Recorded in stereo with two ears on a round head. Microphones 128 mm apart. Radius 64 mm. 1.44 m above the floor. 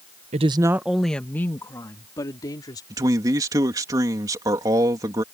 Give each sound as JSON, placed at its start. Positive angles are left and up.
{"t": 0.3, "sound": "a woman speaking", "side_deg": -50}
{"t": 2.9, "sound": "a man speaking", "side_deg": -25}